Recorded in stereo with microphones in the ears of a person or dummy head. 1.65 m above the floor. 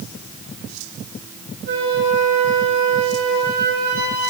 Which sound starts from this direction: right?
A flute, at 1.7 s.